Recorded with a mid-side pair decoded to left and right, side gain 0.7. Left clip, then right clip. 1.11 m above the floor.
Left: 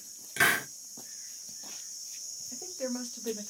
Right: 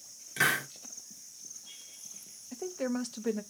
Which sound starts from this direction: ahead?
A hiss, at 0.4 s.